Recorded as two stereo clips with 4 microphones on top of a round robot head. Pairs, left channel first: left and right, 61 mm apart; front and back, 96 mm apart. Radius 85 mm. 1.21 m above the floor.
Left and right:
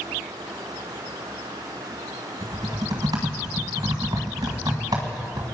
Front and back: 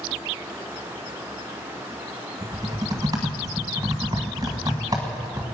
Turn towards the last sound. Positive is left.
turn(degrees=-120)